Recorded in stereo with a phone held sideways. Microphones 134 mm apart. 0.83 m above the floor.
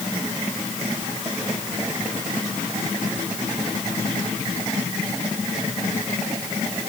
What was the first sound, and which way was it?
Only background noise.